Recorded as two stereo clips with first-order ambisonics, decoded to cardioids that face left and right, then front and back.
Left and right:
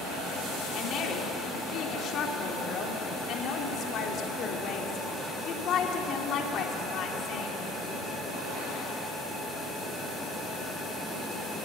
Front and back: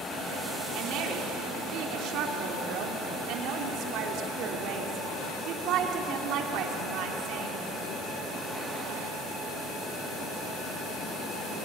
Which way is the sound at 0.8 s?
140° left.